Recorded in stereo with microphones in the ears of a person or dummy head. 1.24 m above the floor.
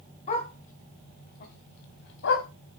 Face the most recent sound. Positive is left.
turn(degrees=70)  # may be behind; listen again after turning